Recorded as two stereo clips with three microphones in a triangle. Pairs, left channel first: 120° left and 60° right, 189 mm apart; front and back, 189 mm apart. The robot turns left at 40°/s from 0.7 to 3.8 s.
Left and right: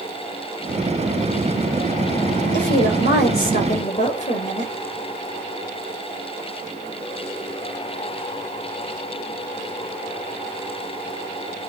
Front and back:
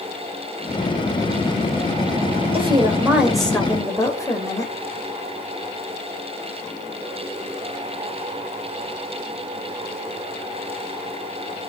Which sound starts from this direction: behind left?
A woman speaking, at 2.5 s.